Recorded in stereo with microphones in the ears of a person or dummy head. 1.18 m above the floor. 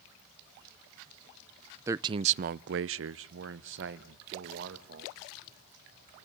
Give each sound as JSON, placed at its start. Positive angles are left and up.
{"t": 1.9, "sound": "a man speaking", "side_deg": -15, "distance_m": 0.5}